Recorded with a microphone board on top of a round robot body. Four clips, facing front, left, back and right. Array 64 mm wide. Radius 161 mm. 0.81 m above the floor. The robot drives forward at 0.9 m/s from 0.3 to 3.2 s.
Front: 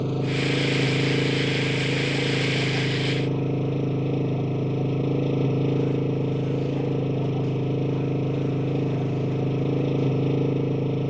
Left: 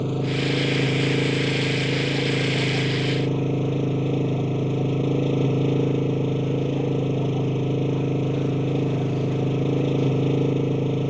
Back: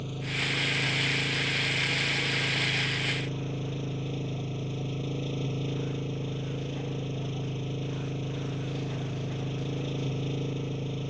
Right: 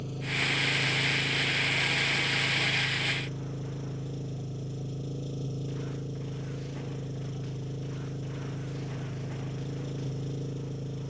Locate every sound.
0.0 s an engine running: 45° left; by 11.1 s 50° left